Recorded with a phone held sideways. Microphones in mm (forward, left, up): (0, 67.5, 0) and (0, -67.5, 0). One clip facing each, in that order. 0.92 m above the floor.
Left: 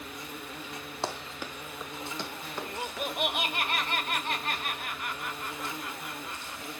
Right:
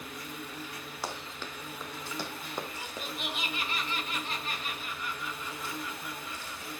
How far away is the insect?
About 1.3 m.